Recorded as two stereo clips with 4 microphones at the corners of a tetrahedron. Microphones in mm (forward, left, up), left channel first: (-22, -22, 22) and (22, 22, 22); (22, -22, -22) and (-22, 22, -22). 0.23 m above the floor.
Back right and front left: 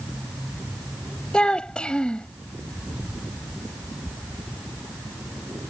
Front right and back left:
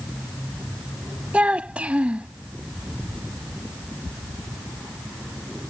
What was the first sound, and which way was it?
A child speaking, 170° left.